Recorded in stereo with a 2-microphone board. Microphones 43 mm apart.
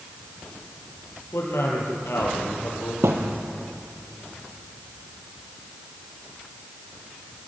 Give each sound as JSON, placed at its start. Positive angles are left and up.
{"t": 1.3, "sound": "a man speaking", "side_deg": 75, "distance_m": 7.5}
{"t": 3.0, "sound": "a thud", "side_deg": -80, "distance_m": 3.0}